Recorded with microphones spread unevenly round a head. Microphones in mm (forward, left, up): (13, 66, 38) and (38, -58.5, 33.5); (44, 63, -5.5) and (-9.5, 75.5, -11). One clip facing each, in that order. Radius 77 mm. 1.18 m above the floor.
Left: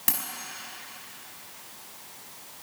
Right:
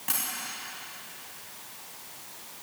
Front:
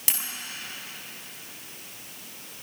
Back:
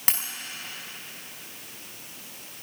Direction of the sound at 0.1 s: 125° left.